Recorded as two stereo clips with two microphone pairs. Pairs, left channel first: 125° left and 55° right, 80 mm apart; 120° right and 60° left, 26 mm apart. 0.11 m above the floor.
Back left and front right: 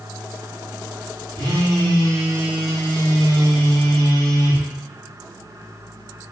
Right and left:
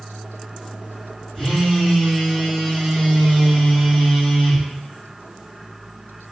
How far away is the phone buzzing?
About 1.7 m.